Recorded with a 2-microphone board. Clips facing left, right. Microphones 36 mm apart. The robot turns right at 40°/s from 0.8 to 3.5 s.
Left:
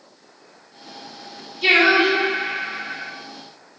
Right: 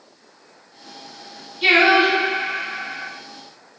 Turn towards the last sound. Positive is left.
turn(degrees=-65)